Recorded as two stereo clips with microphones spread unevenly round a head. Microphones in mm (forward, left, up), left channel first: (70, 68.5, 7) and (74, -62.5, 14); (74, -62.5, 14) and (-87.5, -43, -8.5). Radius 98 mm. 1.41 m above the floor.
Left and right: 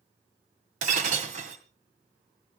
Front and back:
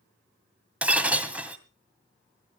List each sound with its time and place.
0.8 s breaking glass: 100° right, 2 m